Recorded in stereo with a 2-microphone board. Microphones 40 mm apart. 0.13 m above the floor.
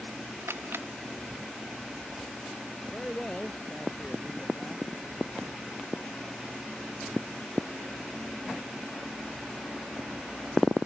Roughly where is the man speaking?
Centre.